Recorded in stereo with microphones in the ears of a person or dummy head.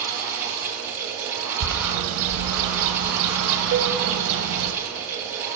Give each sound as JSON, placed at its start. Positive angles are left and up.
{"t": 0.0, "sound": "a fan", "side_deg": -10, "distance_m": 1.6}
{"t": 1.6, "sound": "a bird", "side_deg": -70, "distance_m": 1.0}
{"t": 3.7, "sound": "a cowbell", "side_deg": -60, "distance_m": 0.8}